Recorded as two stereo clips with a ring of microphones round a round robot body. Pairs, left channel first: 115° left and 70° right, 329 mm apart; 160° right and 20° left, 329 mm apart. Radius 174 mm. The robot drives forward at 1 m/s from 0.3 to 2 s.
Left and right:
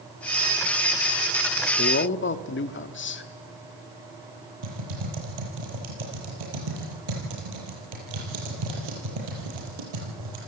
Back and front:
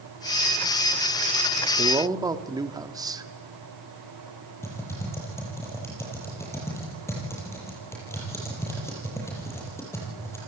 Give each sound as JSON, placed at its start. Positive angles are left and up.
{"t": 1.8, "sound": "a man speaking", "azimuth_deg": 80, "distance_m": 1.6}
{"t": 4.6, "sound": "typing on a keyboard", "azimuth_deg": -75, "distance_m": 7.5}